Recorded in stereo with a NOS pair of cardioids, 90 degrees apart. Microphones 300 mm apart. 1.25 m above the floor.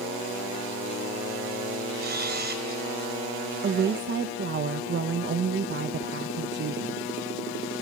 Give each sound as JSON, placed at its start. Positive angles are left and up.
{"t": 2.0, "sound": "a camera shutter", "azimuth_deg": -30, "distance_m": 4.0}
{"t": 3.6, "sound": "a woman speaking", "azimuth_deg": -35, "distance_m": 0.9}